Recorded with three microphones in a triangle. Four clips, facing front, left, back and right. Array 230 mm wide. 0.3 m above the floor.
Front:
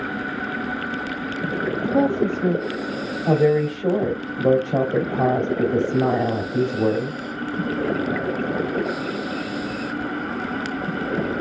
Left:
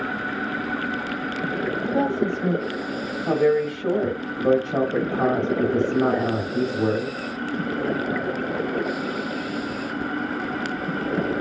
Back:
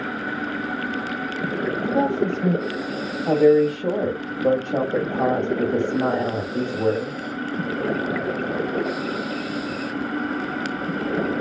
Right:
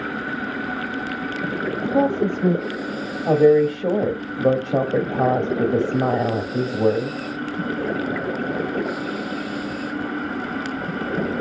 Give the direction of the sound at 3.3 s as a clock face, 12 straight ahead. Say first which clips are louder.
Right 6 dB, back 3 dB; 3 o'clock.